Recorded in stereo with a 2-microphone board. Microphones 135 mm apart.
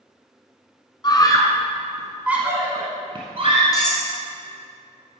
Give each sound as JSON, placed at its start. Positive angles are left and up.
{"t": 1.0, "sound": "a scream", "side_deg": 35, "distance_m": 1.4}
{"t": 3.7, "sound": "cutlery clinking", "side_deg": 30, "distance_m": 2.5}